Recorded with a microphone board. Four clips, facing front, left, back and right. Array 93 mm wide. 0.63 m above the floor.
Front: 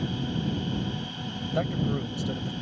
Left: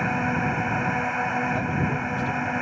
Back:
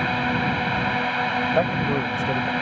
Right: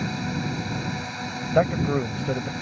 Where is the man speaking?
120° right.